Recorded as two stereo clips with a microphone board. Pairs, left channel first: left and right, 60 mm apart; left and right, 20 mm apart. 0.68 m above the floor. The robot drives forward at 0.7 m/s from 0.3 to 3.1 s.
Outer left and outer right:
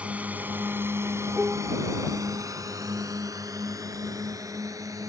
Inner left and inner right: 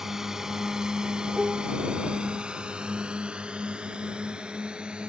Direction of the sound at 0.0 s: 25° right (ahead or behind).